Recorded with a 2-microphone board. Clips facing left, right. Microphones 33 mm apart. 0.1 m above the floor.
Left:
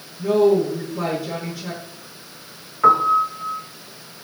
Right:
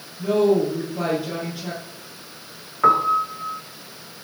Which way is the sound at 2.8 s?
5° right (ahead or behind).